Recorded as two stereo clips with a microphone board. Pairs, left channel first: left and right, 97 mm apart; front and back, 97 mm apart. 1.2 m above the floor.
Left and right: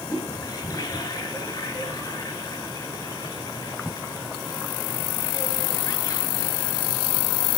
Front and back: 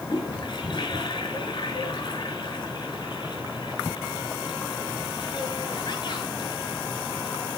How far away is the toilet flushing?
About 8.5 m.